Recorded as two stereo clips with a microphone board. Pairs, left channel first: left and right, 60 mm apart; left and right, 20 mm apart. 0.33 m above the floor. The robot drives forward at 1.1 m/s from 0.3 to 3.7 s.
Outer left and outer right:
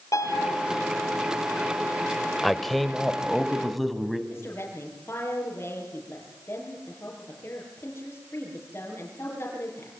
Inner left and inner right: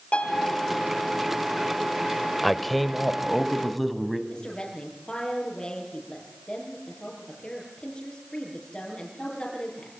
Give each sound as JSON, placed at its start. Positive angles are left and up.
{"t": 0.1, "sound": "a piano", "side_deg": 75, "distance_m": 4.5}
{"t": 2.4, "sound": "a man speaking", "side_deg": 5, "distance_m": 1.0}
{"t": 4.3, "sound": "a woman speaking", "side_deg": 40, "distance_m": 7.0}